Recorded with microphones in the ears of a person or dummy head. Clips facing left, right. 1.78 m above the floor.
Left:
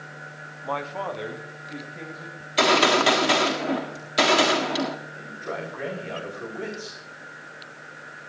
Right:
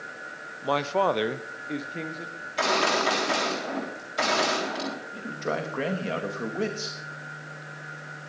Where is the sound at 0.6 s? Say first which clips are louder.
Right 6 dB; 40° right (ahead or behind), 0.9 m.